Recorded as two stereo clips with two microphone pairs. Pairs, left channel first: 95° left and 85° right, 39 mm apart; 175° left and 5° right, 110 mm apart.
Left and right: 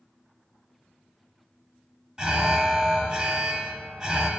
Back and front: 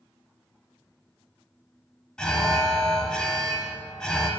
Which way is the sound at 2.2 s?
110° right.